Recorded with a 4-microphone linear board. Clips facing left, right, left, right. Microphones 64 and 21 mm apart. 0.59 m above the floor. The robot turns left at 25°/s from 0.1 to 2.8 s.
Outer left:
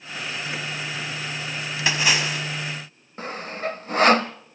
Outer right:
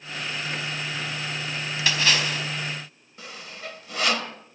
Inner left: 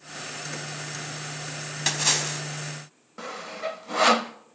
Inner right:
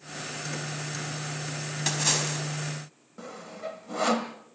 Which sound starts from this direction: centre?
A splash, at 1.9 s.